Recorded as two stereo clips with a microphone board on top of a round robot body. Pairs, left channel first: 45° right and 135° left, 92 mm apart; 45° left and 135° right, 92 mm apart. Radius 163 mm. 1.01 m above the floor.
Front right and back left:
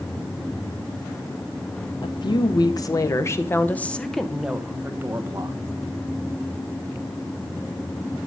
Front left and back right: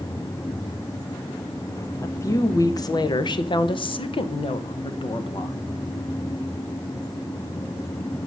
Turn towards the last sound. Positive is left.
turn(degrees=80)